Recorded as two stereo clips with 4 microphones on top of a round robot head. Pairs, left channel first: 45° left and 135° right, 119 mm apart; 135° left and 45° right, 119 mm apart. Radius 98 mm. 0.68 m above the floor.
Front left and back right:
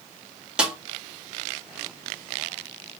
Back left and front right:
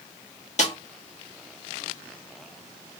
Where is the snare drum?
140° left, 1.6 m.